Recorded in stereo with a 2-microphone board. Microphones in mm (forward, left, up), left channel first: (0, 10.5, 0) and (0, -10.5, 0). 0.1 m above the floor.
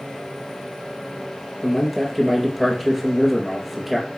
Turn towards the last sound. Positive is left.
turn(degrees=0)  # may be behind; listen again after turning